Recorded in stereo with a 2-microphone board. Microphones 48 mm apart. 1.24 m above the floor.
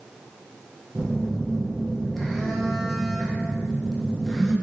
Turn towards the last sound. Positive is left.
turn(degrees=0)  # may be behind; listen again after turning